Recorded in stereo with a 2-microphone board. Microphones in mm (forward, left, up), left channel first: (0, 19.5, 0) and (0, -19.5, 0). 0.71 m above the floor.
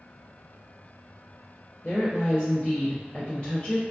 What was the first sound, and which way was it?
A woman speaking, 25° left (ahead or behind).